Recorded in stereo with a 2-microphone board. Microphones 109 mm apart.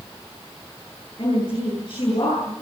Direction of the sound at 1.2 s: 45° left (ahead or behind).